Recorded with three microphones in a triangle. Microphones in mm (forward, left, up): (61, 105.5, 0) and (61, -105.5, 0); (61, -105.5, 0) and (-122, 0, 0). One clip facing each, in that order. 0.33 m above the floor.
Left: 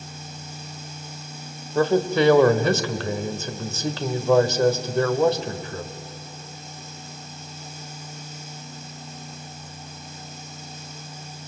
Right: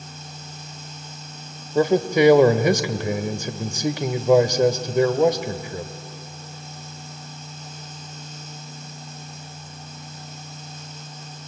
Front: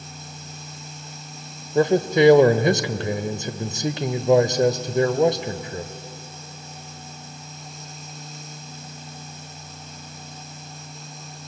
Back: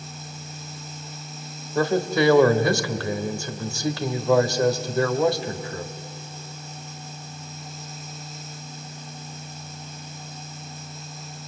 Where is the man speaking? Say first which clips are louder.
Right 2 dB, front 4 dB; 40° right, 1.1 m.